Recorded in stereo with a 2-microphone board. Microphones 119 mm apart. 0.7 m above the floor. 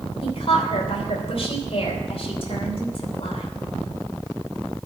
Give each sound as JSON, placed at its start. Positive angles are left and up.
{"t": 0.2, "sound": "a woman speaking", "side_deg": 55, "distance_m": 3.0}